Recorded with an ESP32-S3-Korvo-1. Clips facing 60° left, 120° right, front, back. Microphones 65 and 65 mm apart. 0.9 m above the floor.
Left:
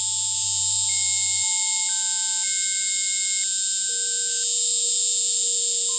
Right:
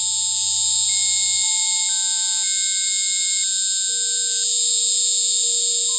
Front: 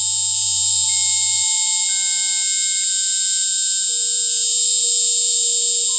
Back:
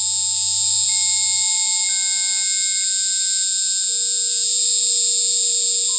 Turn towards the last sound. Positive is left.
turn(degrees=-140)